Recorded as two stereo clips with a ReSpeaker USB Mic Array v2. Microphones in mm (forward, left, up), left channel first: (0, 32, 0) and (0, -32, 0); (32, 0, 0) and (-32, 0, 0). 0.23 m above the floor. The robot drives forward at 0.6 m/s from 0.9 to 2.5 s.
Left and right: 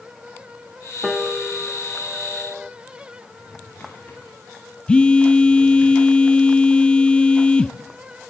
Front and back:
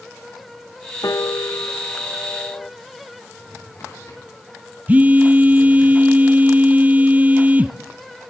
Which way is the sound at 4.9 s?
145° left.